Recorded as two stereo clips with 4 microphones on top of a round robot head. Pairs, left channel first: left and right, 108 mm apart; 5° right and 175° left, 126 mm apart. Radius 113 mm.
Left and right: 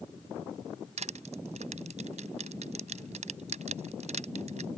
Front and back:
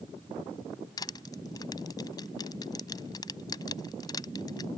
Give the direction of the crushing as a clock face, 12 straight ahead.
2 o'clock.